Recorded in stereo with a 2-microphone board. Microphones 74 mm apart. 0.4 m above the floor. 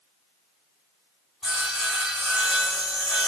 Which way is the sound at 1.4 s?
Centre (ahead or behind).